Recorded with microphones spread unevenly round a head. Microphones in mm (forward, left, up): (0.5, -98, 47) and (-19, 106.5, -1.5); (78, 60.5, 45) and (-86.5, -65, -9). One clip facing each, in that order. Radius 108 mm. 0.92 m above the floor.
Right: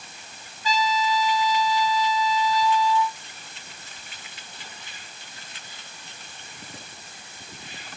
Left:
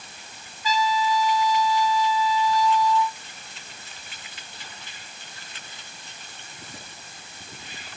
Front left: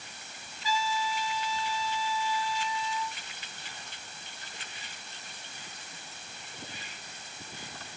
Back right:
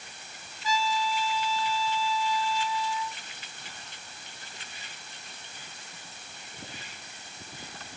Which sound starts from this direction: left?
A trumpet, at 0.6 s.